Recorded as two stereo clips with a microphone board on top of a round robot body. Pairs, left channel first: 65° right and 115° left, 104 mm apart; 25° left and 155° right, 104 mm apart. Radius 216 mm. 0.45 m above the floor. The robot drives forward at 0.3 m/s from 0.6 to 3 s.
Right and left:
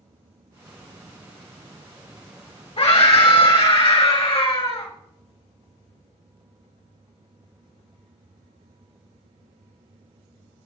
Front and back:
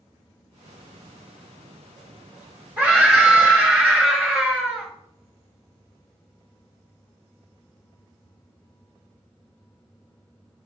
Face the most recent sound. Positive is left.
turn(degrees=-90)